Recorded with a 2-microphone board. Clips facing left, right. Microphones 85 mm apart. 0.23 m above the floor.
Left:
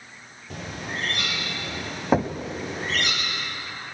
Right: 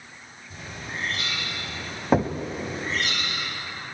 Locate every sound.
0.5 s a bird: 80° left, 5.5 m
2.1 s knocking: 5° left (ahead or behind), 1.0 m